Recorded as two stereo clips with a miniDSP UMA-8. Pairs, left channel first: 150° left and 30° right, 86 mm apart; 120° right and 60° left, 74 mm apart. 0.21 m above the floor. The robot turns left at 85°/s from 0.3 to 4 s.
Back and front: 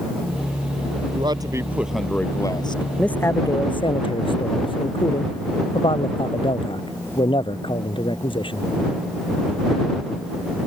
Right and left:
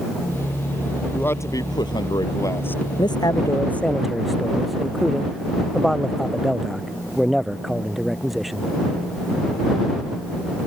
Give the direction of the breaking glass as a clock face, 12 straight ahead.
No breaking glass in this recording.